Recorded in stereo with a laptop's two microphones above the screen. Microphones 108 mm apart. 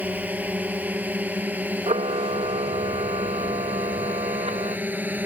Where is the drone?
15° right (ahead or behind).